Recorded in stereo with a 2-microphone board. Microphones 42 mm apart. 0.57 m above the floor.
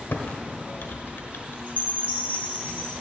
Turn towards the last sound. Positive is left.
turn(degrees=-40)  # may be behind; listen again after turning